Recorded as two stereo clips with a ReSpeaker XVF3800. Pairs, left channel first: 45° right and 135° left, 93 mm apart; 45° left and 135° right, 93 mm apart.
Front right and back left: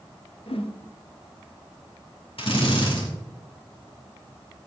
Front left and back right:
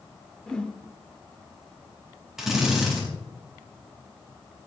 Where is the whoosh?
35° right, 1.3 m.